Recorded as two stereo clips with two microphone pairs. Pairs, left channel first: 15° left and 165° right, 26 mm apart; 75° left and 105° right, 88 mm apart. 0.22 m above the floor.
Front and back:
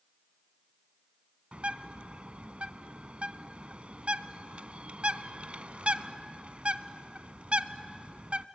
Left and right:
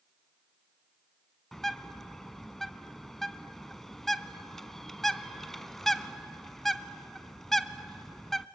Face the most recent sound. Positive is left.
turn(degrees=165)